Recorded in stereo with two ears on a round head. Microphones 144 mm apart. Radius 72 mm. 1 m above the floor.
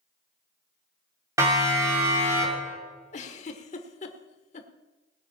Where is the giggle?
40° left (ahead or behind), 1.2 m.